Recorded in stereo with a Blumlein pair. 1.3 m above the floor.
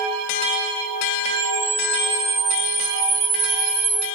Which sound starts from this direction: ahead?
A camera shutter, at 1.4 s.